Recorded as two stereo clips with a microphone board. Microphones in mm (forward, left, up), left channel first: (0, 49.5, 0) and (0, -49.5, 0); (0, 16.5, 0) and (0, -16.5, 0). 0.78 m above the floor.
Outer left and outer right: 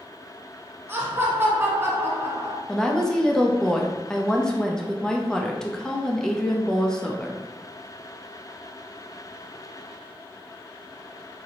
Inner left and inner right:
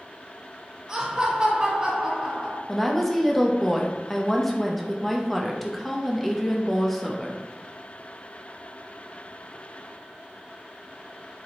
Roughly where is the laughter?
Right.